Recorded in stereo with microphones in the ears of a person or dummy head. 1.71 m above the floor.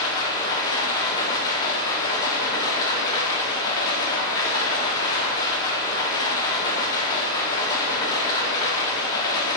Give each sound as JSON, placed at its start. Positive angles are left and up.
{"t": 0.0, "sound": "running water", "side_deg": 25, "distance_m": 0.8}